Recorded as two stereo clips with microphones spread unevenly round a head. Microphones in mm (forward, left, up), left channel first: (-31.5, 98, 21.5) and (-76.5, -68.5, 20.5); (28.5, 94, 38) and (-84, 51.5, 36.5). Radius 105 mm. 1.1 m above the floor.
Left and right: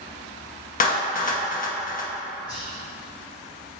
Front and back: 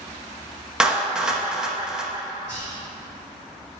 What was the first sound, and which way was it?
A clap, 115° left.